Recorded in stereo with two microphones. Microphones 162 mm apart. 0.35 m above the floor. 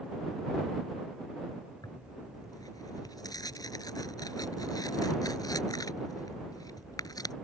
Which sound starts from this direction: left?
Tearing paper, at 1.8 s.